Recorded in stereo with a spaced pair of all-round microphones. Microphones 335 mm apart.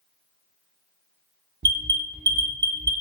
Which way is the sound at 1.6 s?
30° right (ahead or behind).